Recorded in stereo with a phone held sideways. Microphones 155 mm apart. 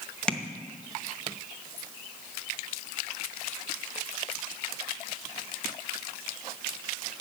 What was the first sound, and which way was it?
Tapping, 5° left (ahead or behind).